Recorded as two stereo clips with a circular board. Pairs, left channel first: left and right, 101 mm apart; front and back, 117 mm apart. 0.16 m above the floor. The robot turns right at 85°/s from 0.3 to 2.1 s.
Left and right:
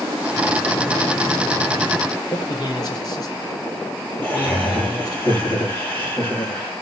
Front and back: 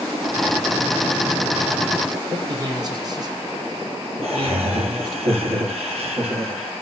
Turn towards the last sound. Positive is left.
turn(degrees=160)